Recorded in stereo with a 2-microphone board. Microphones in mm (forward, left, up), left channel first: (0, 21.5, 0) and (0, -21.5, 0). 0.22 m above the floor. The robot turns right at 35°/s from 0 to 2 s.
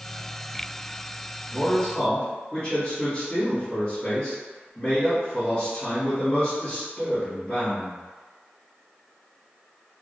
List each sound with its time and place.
1.5 s a man speaking: 45° left (ahead or behind), 1.3 m; by 8.0 s 40° left (ahead or behind), 1.3 m